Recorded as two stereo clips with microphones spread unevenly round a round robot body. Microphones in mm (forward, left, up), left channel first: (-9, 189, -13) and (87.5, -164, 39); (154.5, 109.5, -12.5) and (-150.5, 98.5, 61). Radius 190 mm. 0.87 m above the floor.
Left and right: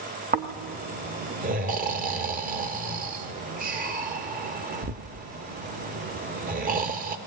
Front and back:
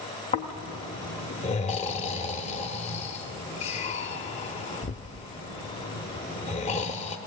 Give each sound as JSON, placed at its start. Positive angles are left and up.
{"t": 0.3, "sound": "snoring", "azimuth_deg": -75, "distance_m": 0.5}